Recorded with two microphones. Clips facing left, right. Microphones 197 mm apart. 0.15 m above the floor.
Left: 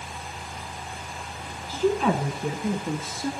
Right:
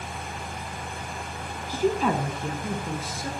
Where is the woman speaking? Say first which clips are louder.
Left 1 dB; 15° right (ahead or behind), 1.2 m; by 3.3 s 30° left (ahead or behind), 2 m.